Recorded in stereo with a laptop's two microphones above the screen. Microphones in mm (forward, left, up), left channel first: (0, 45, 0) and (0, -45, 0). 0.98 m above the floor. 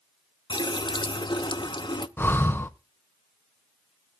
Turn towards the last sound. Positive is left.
turn(degrees=25)  # may be behind; listen again after turning